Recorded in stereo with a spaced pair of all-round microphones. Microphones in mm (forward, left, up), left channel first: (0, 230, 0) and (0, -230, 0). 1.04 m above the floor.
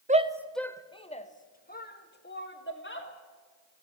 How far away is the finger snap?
No finger snap in this recording.